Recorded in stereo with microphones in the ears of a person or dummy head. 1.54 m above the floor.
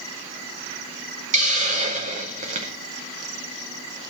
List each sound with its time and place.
1.3 s a hiss: 40° right (ahead or behind), 0.6 m